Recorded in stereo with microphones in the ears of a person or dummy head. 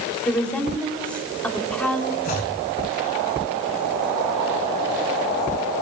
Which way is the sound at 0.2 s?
5° left (ahead or behind).